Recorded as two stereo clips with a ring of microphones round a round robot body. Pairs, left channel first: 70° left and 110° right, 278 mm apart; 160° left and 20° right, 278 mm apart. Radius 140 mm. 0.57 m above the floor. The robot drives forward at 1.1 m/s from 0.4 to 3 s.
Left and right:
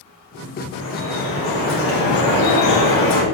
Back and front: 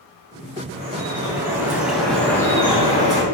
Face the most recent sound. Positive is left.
turn(degrees=90)